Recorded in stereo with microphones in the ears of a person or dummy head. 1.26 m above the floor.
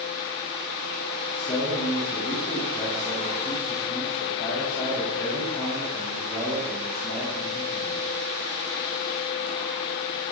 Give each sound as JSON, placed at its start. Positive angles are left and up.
{"t": 1.3, "sound": "a man speaking", "side_deg": 5, "distance_m": 10.0}